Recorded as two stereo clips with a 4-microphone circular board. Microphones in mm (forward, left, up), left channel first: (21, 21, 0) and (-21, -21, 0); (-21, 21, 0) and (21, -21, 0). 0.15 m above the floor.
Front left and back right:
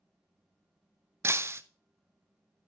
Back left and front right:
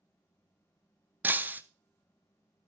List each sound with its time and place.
1.2 s breaking glass: 100° right, 0.6 m